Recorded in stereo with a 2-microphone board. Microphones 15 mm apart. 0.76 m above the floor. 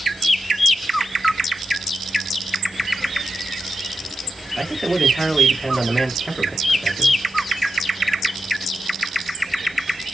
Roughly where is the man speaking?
Left.